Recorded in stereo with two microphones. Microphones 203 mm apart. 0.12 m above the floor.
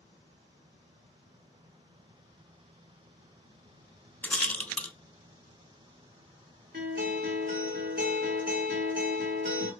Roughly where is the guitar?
Right.